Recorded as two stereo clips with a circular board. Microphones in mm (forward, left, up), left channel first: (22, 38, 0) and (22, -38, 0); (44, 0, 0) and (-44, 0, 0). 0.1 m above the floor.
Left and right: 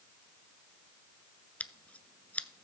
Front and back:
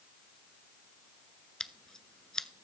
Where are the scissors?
70° left, 0.6 m.